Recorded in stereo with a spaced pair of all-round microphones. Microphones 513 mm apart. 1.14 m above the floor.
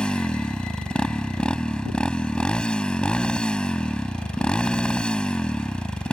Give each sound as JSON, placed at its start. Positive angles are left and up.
{"t": 0.0, "sound": "a motorcycle", "side_deg": 0}